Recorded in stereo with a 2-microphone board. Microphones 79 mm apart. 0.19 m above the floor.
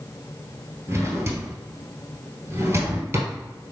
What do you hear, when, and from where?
0.9 s a drawer: 35° right (ahead or behind), 1.2 m